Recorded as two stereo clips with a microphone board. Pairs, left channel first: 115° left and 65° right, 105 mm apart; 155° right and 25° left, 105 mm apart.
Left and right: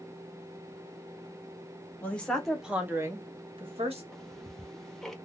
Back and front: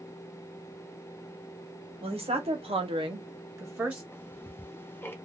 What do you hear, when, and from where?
2.0 s a woman speaking: 40° left, 1.2 m; by 4.0 s 55° right, 1.0 m
4.1 s ticking: 170° right, 0.5 m